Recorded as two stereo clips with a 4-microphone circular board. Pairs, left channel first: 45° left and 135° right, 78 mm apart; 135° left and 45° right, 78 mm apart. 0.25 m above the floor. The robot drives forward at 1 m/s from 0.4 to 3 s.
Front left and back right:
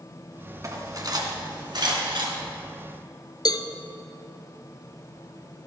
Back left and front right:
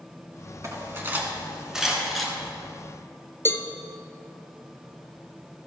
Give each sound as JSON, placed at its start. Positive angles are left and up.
{"t": 0.6, "sound": "cutlery clinking", "azimuth_deg": -90, "distance_m": 1.7}
{"t": 3.5, "sound": "a cowbell", "azimuth_deg": 75, "distance_m": 0.7}